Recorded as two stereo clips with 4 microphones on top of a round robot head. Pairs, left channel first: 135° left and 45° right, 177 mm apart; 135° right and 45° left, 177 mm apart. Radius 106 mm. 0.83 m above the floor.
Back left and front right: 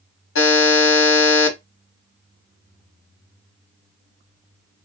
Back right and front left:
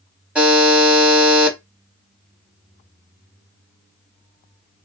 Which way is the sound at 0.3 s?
130° left.